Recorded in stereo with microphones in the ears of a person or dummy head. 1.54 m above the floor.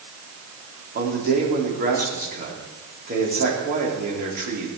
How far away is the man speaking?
About 4 m.